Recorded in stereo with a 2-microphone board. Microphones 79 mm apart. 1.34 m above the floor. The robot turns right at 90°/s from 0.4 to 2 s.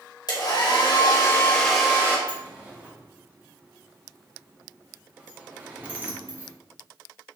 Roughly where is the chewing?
I don't hear chewing.